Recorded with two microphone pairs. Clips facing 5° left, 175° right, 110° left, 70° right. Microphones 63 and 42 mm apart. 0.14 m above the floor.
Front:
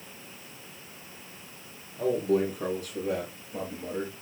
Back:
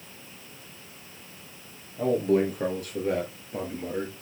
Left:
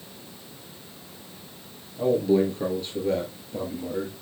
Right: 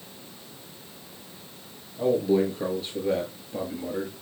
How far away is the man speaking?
About 3 m.